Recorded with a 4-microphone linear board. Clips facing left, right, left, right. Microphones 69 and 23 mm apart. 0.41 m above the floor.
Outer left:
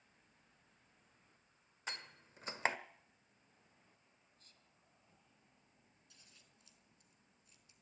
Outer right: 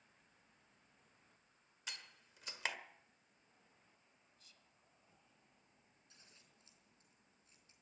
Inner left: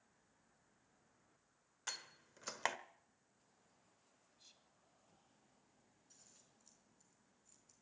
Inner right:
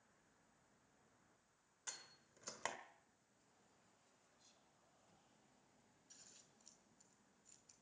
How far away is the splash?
No splash in this recording.